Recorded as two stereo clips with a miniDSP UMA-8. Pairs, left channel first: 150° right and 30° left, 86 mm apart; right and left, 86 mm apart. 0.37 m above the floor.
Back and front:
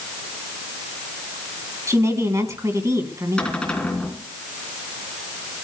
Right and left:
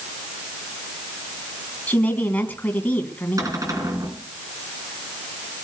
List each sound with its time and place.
1.9 s a woman speaking: 20° right, 3 m
3.4 s a cupboard door: 135° left, 3.5 m